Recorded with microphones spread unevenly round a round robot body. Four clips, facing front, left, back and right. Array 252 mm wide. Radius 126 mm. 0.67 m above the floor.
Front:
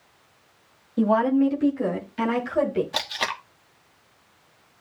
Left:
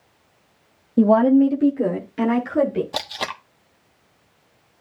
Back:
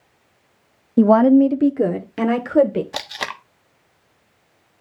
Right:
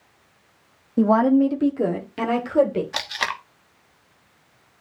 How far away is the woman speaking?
About 0.9 m.